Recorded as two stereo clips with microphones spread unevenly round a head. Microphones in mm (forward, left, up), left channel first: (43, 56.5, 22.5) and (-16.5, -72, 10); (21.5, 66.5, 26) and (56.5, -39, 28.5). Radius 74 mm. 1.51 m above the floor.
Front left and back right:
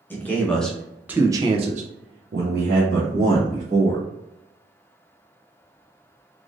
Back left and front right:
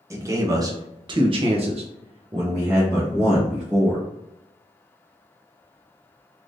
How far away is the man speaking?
About 1.1 m.